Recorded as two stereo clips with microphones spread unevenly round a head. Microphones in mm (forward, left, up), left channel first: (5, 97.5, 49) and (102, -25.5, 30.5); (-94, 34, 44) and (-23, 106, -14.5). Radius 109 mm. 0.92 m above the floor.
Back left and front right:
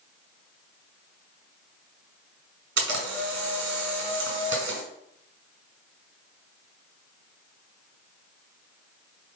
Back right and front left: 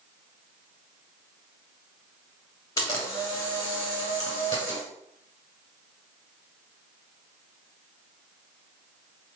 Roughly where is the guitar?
I don't hear a guitar.